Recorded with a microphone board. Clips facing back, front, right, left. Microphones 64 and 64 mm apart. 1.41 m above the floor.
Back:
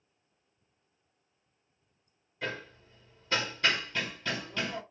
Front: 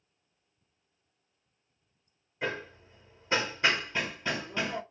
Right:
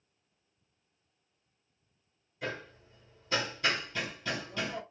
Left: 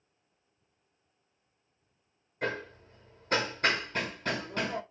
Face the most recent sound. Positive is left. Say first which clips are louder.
# front 3 dB, left 5 dB
turn(degrees=65)